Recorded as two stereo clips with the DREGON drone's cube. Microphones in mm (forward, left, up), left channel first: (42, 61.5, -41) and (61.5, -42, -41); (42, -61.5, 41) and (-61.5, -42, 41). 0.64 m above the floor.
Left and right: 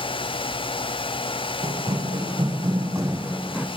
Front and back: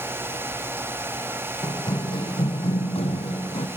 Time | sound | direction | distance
1.6 | running footsteps | 60° right | 2.5 m